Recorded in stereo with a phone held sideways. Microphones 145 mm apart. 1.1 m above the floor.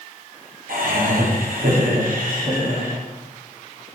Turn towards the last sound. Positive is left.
turn(degrees=-75)  # may be behind; listen again after turning